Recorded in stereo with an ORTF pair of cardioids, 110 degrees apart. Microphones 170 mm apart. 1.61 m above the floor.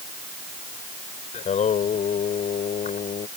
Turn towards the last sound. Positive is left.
turn(degrees=45)